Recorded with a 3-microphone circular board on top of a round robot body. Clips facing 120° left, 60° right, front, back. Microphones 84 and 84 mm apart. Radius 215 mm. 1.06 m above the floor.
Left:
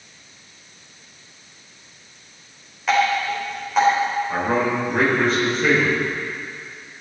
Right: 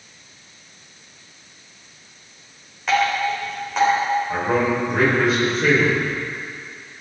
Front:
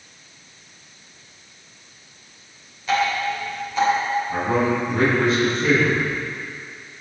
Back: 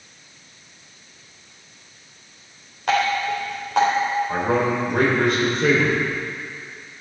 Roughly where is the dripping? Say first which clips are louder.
Even, back 1 dB; behind right.